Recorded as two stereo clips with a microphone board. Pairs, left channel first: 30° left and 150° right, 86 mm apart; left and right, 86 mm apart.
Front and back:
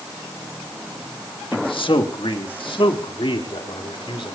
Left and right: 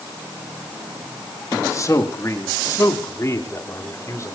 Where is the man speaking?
40° left, 2.0 m.